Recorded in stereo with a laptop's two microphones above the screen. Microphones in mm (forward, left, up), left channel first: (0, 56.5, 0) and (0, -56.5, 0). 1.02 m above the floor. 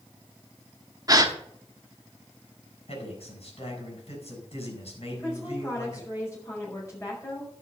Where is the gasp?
35° right (ahead or behind), 0.9 m.